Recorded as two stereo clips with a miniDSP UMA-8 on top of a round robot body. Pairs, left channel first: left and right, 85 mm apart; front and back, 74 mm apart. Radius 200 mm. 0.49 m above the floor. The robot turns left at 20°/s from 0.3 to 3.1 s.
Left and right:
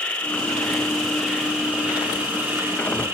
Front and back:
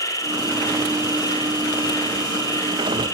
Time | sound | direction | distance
0.0 | an insect | 15° left | 2.5 m